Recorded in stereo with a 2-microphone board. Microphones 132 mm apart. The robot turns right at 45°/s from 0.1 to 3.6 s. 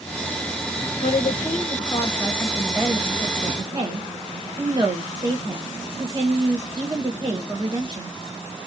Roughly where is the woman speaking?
Left.